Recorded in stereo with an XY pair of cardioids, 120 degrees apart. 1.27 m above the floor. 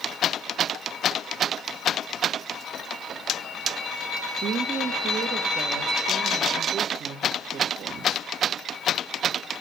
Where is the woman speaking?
60° right, 1.8 m.